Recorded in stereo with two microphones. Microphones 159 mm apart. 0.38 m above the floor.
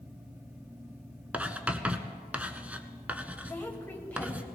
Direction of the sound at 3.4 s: 10° left (ahead or behind).